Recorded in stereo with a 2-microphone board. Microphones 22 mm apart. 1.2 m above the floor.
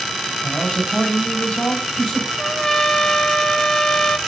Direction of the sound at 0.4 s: 60° left (ahead or behind).